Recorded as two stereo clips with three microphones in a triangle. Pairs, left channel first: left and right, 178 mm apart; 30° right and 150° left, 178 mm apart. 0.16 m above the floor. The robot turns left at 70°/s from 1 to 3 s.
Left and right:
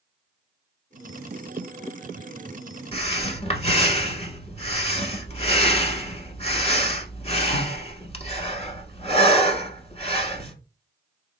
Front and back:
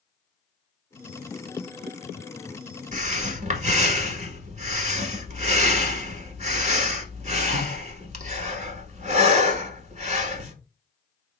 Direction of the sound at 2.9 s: 130° left.